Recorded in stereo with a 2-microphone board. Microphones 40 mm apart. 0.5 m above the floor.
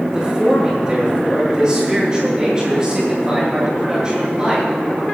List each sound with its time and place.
0.1 s a man speaking: 20° right (ahead or behind), 8.5 m